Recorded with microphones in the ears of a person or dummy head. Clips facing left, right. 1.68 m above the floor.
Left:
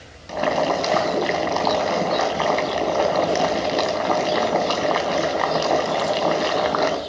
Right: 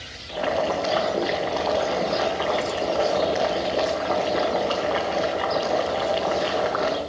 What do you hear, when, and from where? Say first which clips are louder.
0.3 s boiling: left 3 dB; 65° left (ahead or behind), 3 m